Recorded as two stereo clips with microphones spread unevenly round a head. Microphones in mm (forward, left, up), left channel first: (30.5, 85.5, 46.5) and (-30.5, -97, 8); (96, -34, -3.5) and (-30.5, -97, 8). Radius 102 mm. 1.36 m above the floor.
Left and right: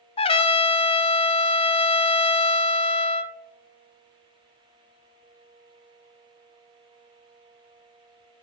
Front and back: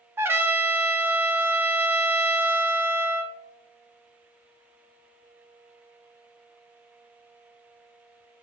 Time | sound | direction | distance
0.2 | a trumpet | 130° left | 0.5 m